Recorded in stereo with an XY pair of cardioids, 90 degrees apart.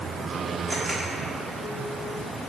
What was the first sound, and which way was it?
A camera shutter, 25° right.